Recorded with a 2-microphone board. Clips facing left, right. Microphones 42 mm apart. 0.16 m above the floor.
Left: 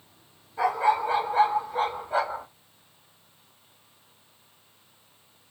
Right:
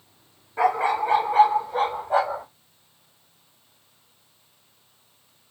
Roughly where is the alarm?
I don't hear an alarm.